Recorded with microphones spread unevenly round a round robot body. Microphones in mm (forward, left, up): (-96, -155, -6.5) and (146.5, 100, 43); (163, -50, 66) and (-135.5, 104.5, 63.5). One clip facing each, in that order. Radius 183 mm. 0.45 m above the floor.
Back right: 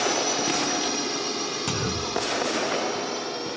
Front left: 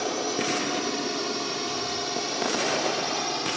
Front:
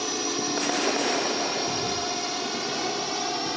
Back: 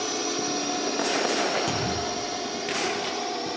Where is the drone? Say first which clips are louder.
Back right 1 dB, even; 100° right; by 3.6 s 5° left.